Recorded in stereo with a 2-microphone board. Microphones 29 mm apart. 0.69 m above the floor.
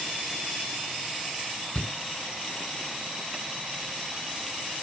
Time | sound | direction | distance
1.8 | a shout | 45° left (ahead or behind) | ?